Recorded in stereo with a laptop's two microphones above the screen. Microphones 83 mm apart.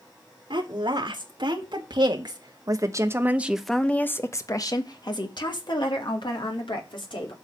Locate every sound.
0.5 s a woman speaking: 75° right (ahead or behind), 2.5 m; by 7.3 s 75° left (ahead or behind), 3 m